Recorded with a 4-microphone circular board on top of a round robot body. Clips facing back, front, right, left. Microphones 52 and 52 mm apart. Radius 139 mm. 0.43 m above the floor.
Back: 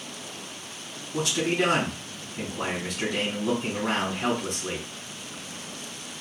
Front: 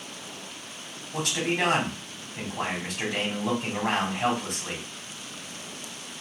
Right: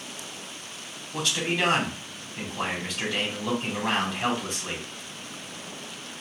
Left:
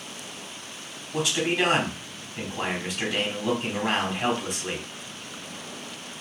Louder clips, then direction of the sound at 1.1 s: Back 2 dB, left 3 dB; 10° left.